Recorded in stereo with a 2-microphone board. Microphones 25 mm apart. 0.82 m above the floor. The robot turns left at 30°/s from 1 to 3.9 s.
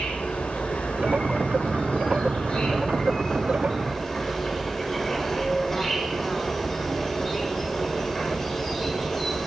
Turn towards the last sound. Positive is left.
turn(degrees=5)